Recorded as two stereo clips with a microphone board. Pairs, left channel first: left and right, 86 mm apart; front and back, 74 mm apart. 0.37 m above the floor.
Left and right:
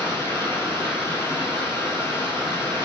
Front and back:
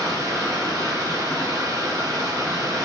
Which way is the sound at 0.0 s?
145° left.